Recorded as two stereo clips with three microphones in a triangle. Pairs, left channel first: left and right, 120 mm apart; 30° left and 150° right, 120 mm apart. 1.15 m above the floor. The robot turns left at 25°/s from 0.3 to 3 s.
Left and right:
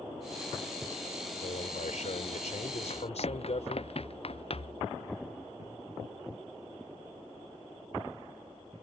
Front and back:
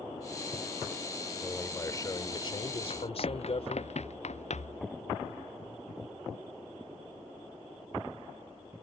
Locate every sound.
1.4 s a man speaking: 105° left; by 3.9 s 65° left
2.9 s running footsteps: 65° left; by 4.8 s 50° left